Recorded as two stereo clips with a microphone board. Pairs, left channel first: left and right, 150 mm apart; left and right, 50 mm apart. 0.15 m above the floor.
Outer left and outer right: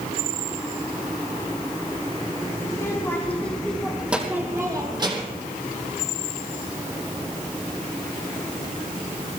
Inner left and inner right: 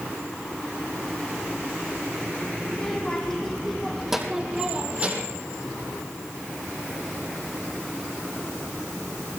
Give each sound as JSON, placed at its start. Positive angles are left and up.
{"t": 2.7, "sound": "a child speaking", "side_deg": 20, "distance_m": 4.5}